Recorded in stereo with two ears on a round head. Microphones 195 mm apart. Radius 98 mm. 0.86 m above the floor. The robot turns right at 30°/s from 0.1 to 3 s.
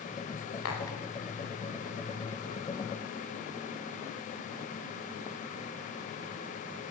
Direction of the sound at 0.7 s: 80° left.